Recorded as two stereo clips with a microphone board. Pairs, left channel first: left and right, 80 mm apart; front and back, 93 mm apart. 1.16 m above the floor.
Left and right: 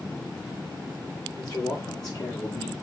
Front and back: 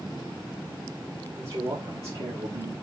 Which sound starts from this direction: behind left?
A man speaking, at 1.4 s.